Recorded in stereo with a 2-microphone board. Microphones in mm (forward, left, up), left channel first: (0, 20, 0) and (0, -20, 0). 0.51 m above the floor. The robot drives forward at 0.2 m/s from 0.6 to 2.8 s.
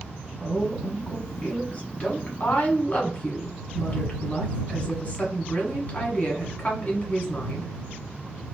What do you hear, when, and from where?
0.4 s a woman speaking: 35° left (ahead or behind), 1.4 m; by 7.7 s 40° left (ahead or behind), 1.2 m